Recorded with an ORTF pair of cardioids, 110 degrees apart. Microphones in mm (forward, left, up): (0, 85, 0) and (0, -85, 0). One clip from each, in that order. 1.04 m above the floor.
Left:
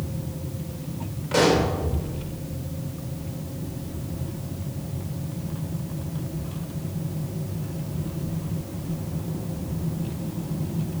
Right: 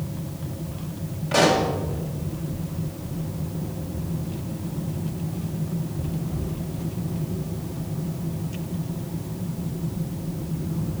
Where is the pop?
Straight ahead, 3.5 m.